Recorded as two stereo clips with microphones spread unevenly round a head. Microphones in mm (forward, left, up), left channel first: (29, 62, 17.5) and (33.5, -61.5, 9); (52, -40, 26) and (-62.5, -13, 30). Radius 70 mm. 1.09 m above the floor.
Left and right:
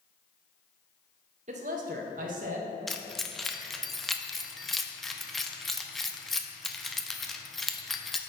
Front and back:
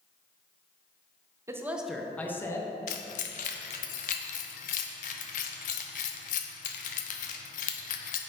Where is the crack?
I don't hear a crack.